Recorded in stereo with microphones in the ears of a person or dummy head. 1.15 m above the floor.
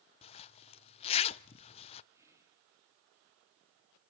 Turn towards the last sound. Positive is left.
turn(degrees=-10)  # may be behind; listen again after turning